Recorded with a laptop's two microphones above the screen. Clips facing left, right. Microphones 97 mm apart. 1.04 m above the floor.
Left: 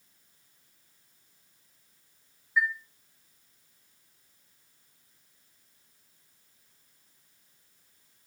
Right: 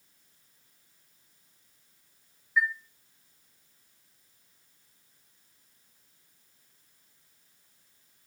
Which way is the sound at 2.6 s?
Centre (ahead or behind).